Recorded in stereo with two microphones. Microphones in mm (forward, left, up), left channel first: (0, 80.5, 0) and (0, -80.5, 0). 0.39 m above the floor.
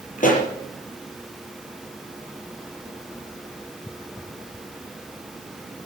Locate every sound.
0.2 s a pop: 55° left (ahead or behind), 5 m